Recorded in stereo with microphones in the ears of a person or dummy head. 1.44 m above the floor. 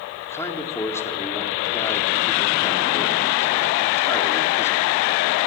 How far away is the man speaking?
About 4 m.